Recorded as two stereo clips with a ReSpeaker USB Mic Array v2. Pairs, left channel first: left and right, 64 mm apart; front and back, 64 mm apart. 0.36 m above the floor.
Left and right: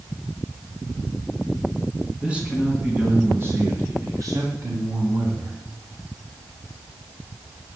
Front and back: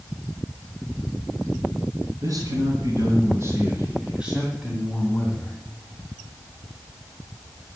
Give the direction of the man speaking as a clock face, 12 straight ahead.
5 o'clock.